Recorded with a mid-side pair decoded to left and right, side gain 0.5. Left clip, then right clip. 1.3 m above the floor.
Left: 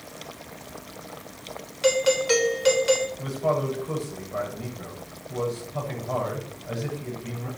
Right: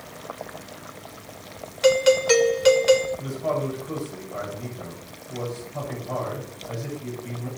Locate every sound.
1.8 s a doorbell: 20° right, 3 m
3.2 s a man speaking: 25° left, 7.5 m